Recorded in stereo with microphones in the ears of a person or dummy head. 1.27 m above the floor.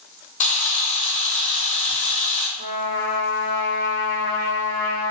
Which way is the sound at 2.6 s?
45° right (ahead or behind).